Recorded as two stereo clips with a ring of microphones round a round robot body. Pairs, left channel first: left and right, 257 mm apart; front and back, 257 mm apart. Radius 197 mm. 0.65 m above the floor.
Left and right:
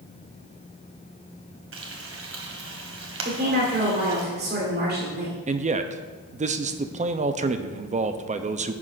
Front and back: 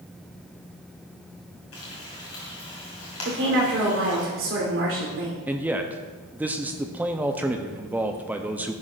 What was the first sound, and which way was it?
Frying, 50° right.